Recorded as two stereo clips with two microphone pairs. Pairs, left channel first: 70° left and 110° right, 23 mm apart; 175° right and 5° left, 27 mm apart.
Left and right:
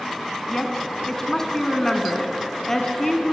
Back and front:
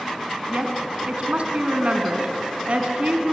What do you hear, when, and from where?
0.5 s a woman speaking: 5° left, 2.5 m